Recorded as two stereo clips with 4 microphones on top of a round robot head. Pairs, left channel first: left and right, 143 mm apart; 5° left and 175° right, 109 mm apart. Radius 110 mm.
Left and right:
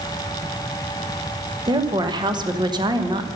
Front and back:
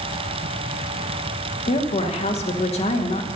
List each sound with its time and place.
1.7 s a woman speaking: 30° right, 1.1 m